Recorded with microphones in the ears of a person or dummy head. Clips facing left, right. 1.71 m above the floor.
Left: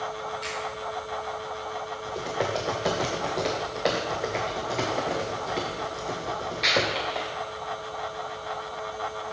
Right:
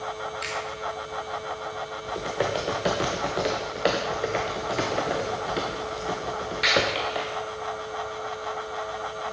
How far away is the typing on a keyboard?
About 0.6 m.